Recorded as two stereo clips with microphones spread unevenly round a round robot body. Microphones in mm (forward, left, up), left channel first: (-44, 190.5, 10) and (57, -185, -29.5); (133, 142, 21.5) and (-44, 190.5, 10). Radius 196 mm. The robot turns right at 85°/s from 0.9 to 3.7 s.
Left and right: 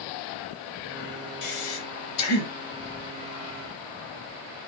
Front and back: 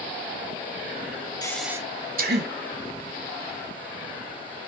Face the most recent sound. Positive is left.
turn(degrees=-110)